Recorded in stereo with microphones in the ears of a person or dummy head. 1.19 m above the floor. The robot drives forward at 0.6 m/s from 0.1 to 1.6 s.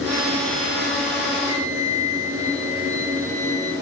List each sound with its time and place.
1.4 s a flute: 25° right (ahead or behind), 9 m